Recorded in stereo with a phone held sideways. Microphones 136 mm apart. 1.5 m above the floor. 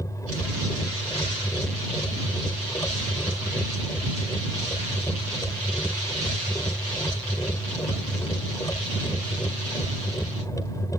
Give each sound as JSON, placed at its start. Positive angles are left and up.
{"t": 0.0, "sound": "a machine running", "side_deg": 25}